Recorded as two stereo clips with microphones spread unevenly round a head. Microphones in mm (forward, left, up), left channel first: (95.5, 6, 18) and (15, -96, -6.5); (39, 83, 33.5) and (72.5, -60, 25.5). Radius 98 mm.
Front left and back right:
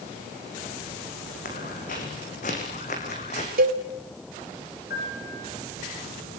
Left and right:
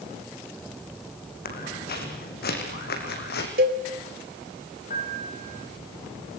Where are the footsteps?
90° left, 4.5 m; by 3.5 s 105° left, 4 m.